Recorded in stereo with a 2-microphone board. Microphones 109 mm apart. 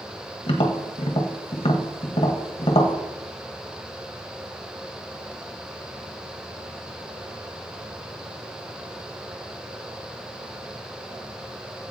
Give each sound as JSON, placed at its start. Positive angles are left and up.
{"t": 0.5, "sound": "tapping", "side_deg": 65, "distance_m": 1.9}